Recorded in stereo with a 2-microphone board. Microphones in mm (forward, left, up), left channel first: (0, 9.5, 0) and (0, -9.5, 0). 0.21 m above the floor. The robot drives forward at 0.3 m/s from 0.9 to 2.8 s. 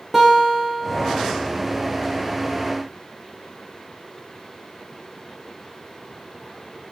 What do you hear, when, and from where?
0.1 s a guitar: 10° right (ahead or behind), 6 m